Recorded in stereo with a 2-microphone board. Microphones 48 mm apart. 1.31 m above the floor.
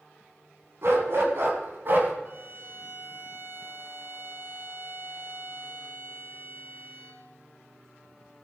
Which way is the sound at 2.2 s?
45° right (ahead or behind).